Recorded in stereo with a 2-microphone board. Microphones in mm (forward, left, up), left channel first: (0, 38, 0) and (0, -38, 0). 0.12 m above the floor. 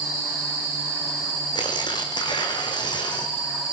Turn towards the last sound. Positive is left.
turn(degrees=75)  # may be behind; listen again after turning